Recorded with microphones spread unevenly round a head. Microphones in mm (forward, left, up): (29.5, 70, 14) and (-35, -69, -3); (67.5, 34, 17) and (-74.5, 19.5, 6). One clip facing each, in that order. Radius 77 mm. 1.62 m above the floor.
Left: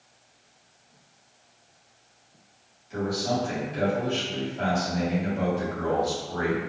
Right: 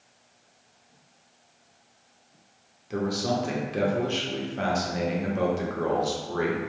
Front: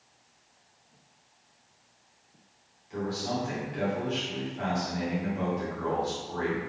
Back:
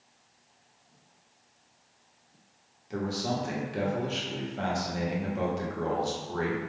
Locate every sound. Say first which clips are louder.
2.9 s a man speaking: even, back 1 dB; 135° right, 0.8 m